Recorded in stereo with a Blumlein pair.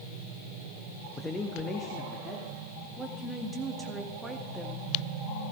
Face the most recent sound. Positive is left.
turn(degrees=-10)